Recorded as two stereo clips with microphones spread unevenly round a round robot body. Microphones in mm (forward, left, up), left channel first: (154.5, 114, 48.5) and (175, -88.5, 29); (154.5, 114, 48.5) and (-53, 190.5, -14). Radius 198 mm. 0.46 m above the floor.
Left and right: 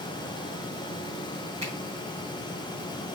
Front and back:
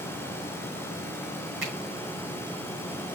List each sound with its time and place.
1.6 s a finger snap: 155° right, 6.5 m